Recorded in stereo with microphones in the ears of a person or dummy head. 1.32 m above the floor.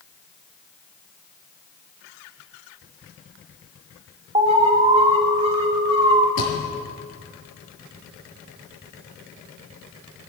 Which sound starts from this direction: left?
A thud, at 6.4 s.